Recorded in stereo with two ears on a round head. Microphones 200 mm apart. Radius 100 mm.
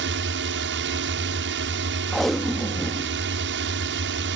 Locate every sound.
0.0 s a drone: 55° right (ahead or behind)
2.1 s tape being pulled: centre (ahead or behind)